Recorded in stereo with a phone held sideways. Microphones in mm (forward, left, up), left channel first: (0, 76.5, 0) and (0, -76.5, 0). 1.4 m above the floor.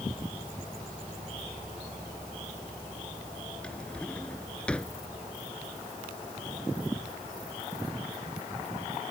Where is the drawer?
5° left (ahead or behind).